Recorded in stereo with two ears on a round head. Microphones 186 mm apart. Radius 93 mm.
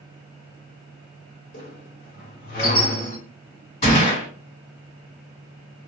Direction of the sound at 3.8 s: 35° left (ahead or behind).